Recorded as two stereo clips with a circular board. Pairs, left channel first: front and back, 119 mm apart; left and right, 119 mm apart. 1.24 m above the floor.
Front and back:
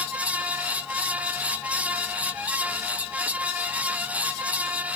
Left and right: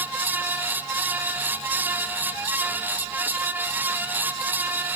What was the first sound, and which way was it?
Only background noise.